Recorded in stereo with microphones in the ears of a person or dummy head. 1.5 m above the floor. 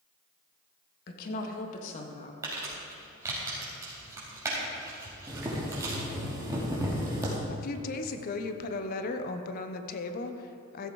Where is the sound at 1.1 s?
55° left (ahead or behind), 1.6 m; by 2.3 s 30° left (ahead or behind), 1.8 m.